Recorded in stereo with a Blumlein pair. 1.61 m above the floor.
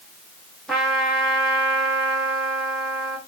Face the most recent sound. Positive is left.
turn(degrees=-5)